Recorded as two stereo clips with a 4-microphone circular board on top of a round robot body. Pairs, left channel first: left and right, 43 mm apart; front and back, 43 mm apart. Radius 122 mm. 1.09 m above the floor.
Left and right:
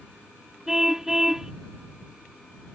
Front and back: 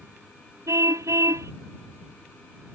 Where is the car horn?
170° right.